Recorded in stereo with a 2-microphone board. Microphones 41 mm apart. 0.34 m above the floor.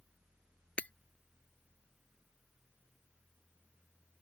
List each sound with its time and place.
0.8 s breaking glass: 35° left (ahead or behind)